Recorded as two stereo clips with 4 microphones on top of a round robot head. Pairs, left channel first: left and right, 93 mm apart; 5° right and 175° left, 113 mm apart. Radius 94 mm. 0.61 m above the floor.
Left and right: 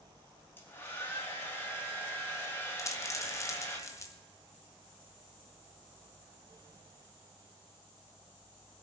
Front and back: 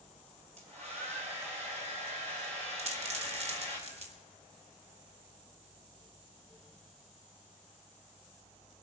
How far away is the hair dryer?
About 3.5 m.